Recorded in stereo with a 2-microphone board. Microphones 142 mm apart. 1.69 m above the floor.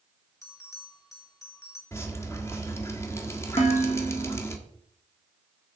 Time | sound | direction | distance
0.4 | a bell | 25° left (ahead or behind) | 2.5 m
1.9 | dripping | 20° left (ahead or behind) | 1.3 m
3.6 | dishes clattering | 55° left (ahead or behind) | 1.7 m